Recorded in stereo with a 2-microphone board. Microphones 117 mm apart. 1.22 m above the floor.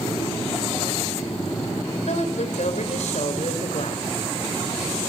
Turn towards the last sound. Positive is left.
turn(degrees=75)  # may be behind; listen again after turning